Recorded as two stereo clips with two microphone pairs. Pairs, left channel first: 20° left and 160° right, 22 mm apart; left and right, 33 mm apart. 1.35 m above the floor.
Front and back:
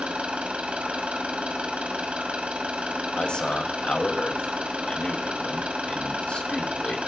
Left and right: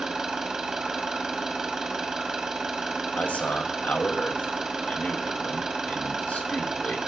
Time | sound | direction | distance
0.0 | an engine running | 170° right | 3 m
3.2 | a man speaking | 55° left | 2.5 m